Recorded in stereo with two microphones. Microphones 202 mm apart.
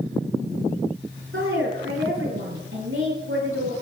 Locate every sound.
1.3 s a woman speaking: 85° right, 8 m